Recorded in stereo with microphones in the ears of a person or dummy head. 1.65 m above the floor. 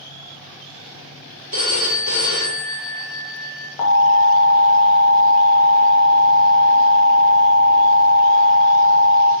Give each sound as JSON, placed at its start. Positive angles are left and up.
{"t": 1.5, "sound": "a phone ringing", "side_deg": -25, "distance_m": 1.9}
{"t": 3.8, "sound": "an alarm", "side_deg": 40, "distance_m": 1.0}